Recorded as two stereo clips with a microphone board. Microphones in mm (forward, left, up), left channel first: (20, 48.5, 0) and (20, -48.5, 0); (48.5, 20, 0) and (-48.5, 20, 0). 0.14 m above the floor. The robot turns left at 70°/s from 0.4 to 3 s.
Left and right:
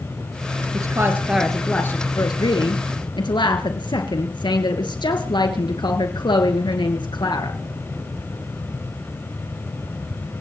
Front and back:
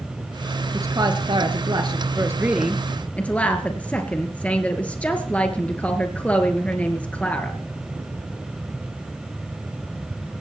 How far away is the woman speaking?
About 2 m.